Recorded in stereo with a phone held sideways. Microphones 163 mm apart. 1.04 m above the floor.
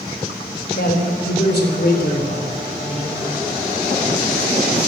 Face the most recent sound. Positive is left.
turn(degrees=40)  # may be behind; listen again after turning